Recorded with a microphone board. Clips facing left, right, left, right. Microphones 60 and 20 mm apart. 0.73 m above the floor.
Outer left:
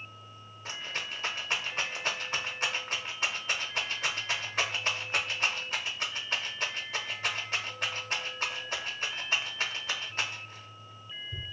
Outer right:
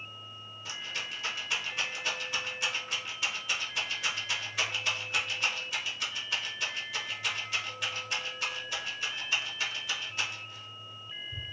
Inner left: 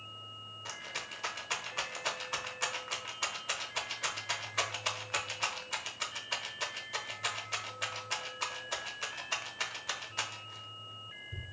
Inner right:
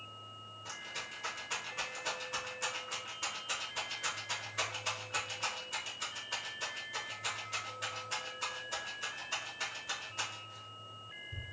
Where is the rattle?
40° left (ahead or behind), 0.6 m.